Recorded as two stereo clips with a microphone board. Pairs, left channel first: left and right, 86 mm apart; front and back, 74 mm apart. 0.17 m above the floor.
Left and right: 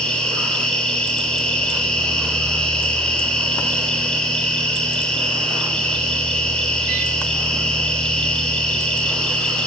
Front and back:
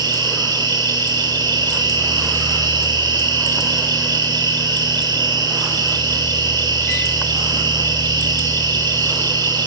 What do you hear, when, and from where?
0.0 s an insect: 170° left, 7 m